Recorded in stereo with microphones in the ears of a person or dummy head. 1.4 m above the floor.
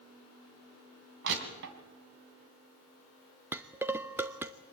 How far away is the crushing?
About 3 m.